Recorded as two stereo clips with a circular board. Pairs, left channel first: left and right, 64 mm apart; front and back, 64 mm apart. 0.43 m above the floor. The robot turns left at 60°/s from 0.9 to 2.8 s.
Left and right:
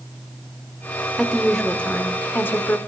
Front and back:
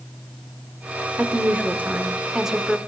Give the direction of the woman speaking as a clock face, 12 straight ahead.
6 o'clock.